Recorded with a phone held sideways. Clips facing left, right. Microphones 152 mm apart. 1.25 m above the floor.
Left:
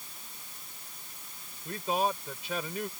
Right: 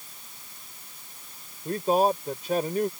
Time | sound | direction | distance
1.6 | a man speaking | 45° right (ahead or behind) | ?